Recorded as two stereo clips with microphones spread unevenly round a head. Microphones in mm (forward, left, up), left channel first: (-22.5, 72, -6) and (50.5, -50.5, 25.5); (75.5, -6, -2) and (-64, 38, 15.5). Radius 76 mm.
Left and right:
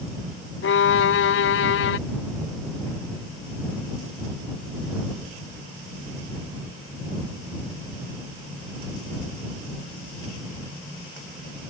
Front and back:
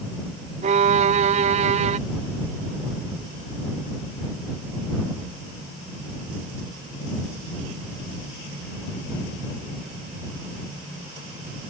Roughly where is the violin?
Behind left.